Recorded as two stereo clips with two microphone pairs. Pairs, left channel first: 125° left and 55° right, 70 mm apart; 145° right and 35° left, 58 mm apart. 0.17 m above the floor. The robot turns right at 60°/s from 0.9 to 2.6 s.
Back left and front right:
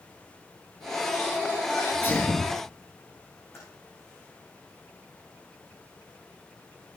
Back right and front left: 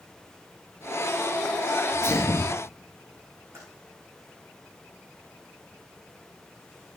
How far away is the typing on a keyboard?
About 8 m.